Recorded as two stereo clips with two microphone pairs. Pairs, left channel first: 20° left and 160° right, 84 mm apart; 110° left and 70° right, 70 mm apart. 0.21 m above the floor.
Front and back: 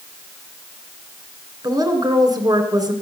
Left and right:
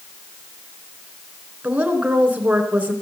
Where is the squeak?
No squeak in this recording.